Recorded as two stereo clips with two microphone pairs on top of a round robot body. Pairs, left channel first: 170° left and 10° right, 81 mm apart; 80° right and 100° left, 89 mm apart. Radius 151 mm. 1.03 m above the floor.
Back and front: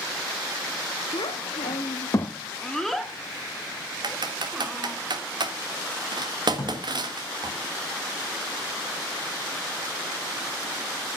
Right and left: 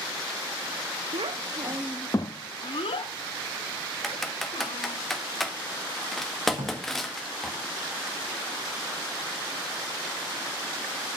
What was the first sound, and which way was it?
A child speaking, 125° left.